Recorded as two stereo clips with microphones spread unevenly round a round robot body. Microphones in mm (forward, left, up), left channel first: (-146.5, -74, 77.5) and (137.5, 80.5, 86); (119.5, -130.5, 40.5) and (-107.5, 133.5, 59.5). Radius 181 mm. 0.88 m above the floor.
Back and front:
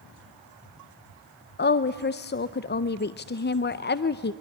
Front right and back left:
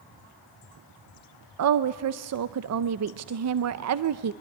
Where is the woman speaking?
160° left, 0.6 m.